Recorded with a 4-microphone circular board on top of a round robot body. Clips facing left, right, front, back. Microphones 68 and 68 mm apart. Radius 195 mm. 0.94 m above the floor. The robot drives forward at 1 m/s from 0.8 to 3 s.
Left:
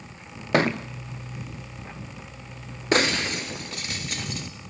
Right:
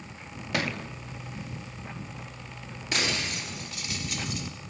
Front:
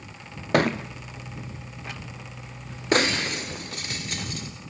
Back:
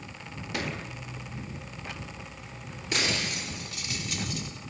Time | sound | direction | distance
0.5 | a thud | 40° left | 0.7 m
2.9 | breaking glass | 40° left | 1.4 m